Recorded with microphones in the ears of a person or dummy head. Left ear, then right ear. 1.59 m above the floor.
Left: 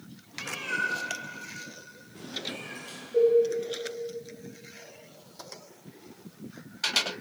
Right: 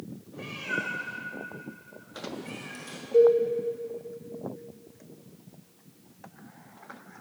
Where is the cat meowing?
10° left (ahead or behind), 1.7 m; by 3.0 s 40° right (ahead or behind), 1.6 m.